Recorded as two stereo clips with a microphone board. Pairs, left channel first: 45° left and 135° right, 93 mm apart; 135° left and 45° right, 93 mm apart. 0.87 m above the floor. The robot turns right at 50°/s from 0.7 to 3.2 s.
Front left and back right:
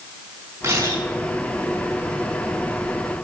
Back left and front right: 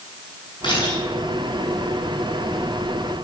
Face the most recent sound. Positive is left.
turn(degrees=-70)